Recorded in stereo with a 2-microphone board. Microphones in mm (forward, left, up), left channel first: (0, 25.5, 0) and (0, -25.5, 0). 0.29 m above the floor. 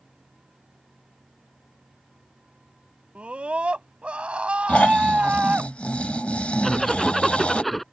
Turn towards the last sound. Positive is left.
turn(degrees=0)  # may be behind; listen again after turning